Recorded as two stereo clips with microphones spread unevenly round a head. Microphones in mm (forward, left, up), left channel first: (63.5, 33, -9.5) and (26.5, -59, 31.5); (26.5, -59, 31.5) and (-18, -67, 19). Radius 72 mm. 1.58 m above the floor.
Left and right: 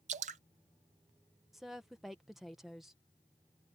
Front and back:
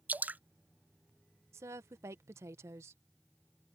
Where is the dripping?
120° right.